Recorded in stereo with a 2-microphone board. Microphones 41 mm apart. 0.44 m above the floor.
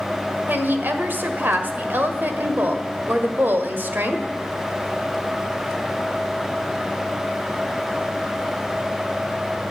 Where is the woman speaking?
55° right (ahead or behind), 1.6 m.